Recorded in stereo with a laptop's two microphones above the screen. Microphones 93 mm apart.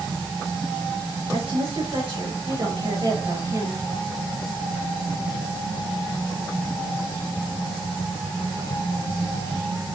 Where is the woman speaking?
75° right (ahead or behind), 3.5 m; by 3.8 s 40° right (ahead or behind), 5 m.